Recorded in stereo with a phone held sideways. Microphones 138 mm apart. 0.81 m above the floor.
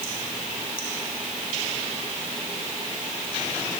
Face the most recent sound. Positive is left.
No sound to turn to.